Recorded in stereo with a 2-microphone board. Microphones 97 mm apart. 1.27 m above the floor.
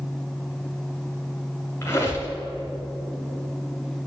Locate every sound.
1.8 s a squeak: 25° left (ahead or behind), 2.5 m